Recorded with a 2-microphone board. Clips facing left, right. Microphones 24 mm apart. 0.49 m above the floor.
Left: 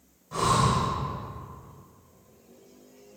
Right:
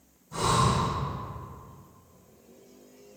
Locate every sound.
0.3 s breathing: 60° left (ahead or behind), 2.5 m